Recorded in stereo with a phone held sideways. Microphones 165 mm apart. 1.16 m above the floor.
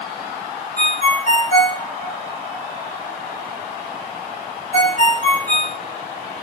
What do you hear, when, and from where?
0.8 s a ringtone: 50° left (ahead or behind), 1.1 m